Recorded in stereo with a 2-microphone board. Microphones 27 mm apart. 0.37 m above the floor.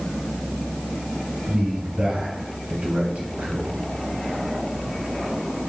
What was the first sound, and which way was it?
A man speaking, 65° right (ahead or behind).